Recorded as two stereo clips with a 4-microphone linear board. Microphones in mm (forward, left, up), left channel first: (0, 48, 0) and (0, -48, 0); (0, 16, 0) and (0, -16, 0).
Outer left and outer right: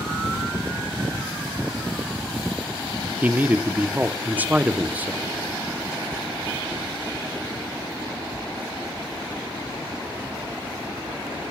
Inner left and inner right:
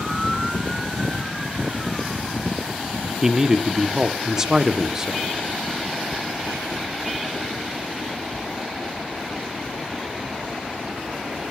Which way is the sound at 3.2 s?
15° right (ahead or behind).